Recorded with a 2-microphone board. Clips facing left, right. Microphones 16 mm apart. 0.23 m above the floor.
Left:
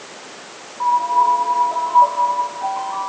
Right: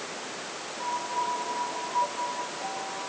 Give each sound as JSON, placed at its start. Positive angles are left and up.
{"t": 0.8, "sound": "a piano", "side_deg": 70}